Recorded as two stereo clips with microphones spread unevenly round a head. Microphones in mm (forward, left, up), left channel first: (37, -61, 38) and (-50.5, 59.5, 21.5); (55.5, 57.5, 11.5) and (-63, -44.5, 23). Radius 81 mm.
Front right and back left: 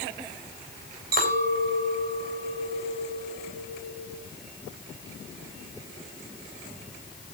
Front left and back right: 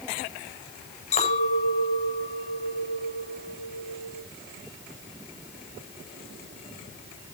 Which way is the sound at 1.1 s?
95° left.